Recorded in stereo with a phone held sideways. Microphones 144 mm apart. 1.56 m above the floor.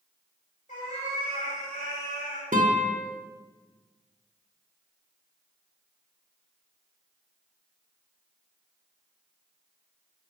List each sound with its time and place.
0.7 s a cat meowing: 65° left (ahead or behind), 3 m
2.5 s a guitar: 65° right (ahead or behind), 1.2 m